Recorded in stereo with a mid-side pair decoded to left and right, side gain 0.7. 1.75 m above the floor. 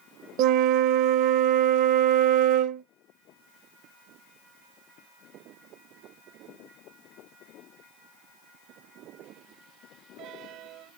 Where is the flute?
65° right, 0.5 m.